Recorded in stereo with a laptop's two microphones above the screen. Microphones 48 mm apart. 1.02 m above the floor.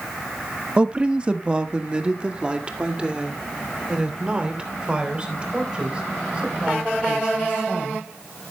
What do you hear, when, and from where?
0.8 s a woman speaking: 20° right (ahead or behind), 1.1 m